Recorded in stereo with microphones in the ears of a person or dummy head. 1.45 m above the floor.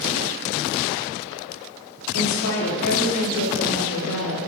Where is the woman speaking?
75° left (ahead or behind), 4 m; by 4.5 s 80° left, 3 m.